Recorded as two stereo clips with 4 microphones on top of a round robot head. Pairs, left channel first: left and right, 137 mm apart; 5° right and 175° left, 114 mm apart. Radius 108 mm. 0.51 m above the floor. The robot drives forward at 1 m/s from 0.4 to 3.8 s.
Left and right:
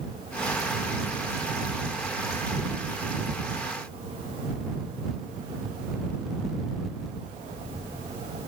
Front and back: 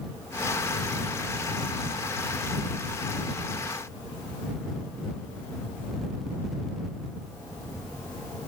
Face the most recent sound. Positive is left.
No sound to turn to.